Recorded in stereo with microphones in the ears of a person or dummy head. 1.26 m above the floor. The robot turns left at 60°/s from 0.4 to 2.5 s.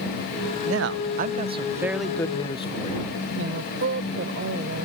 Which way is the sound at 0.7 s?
100° right.